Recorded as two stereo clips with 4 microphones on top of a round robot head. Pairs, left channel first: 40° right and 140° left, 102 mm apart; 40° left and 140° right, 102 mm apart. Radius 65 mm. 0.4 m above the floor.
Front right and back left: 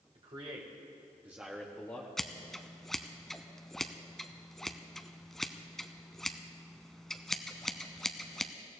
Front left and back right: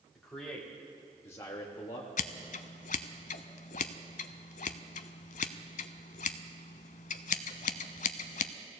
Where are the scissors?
45° left, 0.5 m.